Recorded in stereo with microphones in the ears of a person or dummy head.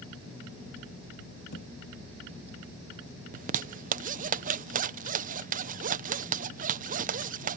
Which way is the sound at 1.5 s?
60° left (ahead or behind).